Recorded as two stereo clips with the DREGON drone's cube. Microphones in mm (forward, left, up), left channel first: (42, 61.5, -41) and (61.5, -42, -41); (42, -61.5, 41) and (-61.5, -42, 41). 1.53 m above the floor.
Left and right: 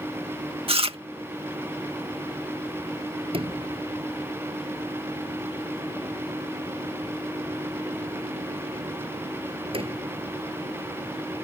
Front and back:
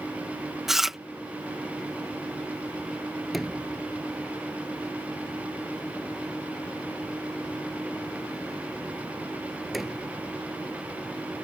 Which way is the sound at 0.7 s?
105° right.